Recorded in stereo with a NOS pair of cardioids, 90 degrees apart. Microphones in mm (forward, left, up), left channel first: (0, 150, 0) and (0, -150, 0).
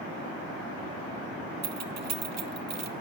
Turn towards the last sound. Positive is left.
turn(degrees=-60)